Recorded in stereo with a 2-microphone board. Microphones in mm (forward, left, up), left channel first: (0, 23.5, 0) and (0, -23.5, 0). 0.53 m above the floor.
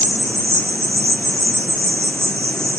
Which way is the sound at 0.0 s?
70° right (ahead or behind).